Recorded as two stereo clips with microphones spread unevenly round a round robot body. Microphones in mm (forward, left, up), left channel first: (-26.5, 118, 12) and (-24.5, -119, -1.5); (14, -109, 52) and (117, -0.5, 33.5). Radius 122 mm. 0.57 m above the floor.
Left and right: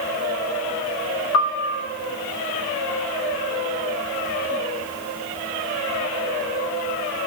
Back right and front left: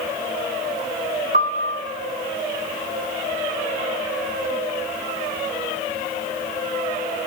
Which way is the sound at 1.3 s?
60° left.